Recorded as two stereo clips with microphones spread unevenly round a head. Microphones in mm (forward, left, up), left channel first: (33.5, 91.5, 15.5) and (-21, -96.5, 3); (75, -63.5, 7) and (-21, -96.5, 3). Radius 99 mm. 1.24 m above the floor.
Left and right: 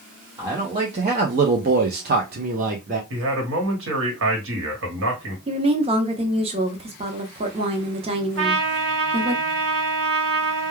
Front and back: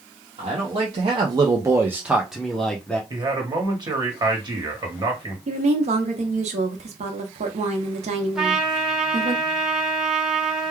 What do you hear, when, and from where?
0.4 s a man speaking: 175° right, 0.8 m; by 3.0 s 60° right, 0.9 m
3.1 s a man speaking: 120° right, 1.3 m
5.5 s a woman speaking: 170° right, 0.7 m
8.3 s a trumpet: 75° right, 1.1 m